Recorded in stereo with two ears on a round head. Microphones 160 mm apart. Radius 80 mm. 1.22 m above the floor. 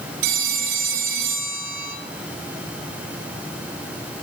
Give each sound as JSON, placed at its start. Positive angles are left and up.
{"t": 0.2, "sound": "a phone ringing", "side_deg": -85, "distance_m": 5.0}